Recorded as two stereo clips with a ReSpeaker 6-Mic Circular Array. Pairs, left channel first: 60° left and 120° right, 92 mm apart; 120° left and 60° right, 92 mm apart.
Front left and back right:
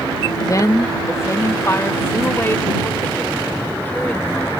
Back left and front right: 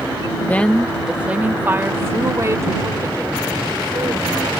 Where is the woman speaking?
65° left; by 4.5 s 10° right.